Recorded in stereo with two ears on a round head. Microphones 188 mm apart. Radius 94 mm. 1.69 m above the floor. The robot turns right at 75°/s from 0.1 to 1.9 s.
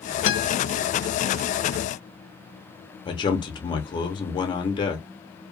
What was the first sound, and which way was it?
A guitar, 60° left (ahead or behind).